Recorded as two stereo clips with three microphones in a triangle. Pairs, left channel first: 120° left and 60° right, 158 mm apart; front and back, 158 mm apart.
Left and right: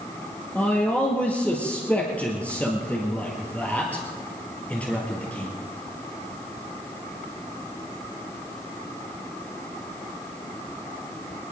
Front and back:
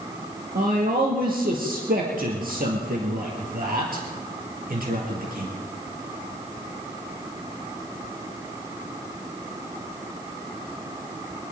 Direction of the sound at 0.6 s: 160° right.